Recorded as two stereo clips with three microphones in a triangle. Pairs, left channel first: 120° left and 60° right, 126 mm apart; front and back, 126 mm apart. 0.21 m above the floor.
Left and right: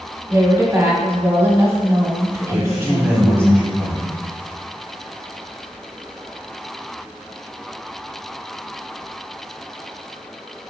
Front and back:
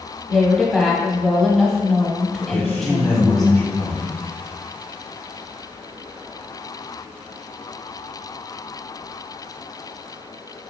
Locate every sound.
0.3 s a woman speaking: 85° right, 1.0 m
2.5 s a man speaking: 30° left, 1.0 m